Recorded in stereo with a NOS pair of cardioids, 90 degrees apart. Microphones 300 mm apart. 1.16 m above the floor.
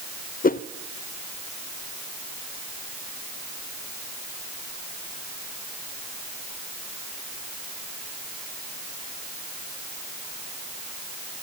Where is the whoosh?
30° left, 0.7 m.